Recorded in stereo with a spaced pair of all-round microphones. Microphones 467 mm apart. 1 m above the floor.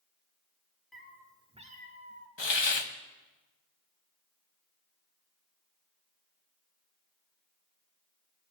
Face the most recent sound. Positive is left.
turn(degrees=65)  # may be behind; listen again after turning